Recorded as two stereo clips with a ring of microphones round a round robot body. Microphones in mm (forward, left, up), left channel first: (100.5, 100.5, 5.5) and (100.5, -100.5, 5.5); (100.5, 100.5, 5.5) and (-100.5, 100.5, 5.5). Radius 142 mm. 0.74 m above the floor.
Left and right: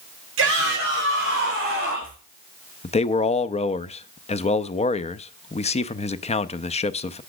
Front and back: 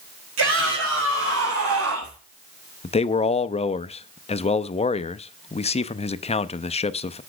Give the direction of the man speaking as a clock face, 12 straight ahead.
10 o'clock.